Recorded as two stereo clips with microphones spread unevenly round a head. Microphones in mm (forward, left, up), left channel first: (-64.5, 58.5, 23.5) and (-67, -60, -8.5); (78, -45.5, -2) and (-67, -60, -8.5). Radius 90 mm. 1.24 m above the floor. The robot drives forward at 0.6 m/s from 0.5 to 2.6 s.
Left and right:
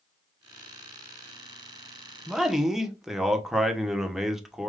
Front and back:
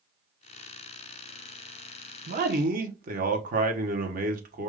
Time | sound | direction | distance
2.3 | a man speaking | 165° right | 0.9 m